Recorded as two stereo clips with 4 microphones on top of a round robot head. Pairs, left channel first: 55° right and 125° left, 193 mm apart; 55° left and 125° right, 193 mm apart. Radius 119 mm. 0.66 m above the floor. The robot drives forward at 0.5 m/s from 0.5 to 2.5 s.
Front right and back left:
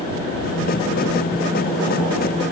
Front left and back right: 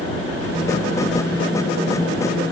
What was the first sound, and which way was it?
Only background noise.